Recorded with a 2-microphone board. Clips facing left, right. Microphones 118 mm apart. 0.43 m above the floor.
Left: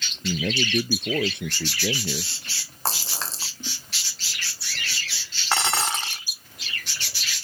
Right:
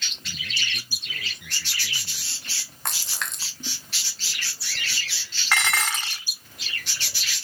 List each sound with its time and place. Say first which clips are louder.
0.2 s a man speaking: left 13 dB; 75° left (ahead or behind)
2.9 s a splash: left 4 dB; 30° left (ahead or behind)
5.5 s dishes clattering: left 2 dB; 30° left (ahead or behind)